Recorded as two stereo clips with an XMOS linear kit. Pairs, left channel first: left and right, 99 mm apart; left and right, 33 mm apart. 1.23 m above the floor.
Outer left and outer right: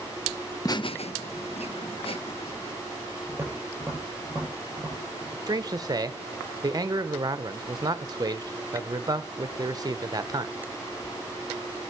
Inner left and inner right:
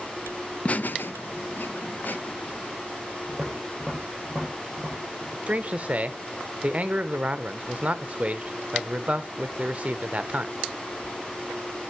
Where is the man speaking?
35° right (ahead or behind), 1.0 m.